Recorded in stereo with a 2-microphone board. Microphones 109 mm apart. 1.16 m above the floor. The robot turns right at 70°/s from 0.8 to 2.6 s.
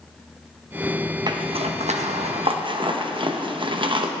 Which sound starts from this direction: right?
A zipper, at 1.3 s.